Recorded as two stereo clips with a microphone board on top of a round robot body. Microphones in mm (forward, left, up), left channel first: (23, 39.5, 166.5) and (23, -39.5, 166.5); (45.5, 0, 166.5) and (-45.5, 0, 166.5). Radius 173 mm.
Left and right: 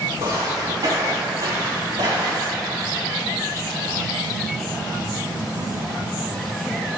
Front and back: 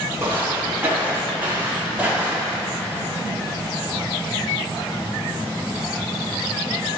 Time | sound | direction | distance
0.2 | footsteps | 120° right | 3.5 m